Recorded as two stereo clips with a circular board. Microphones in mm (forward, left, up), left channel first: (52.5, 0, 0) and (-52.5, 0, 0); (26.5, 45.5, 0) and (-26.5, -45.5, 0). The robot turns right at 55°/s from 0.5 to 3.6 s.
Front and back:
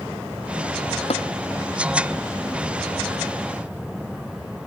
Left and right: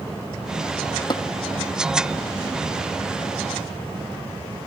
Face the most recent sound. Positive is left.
turn(degrees=155)